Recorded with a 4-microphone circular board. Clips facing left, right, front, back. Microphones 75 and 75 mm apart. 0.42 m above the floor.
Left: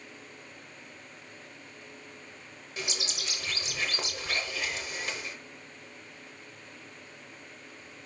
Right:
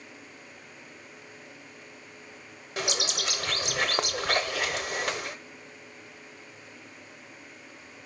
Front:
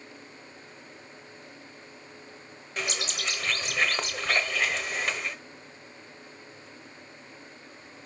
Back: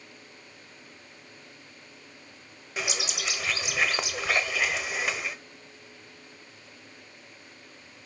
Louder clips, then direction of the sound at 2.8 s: Right 7 dB, even; 95° right.